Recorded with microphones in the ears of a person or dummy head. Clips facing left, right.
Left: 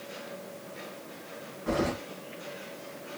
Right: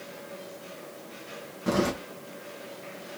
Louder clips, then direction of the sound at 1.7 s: Right 3 dB; 55° right (ahead or behind).